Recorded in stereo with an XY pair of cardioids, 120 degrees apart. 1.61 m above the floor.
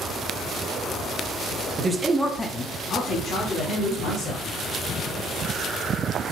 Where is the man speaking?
30° right, 0.7 m; by 4.4 s 80° left, 1.9 m.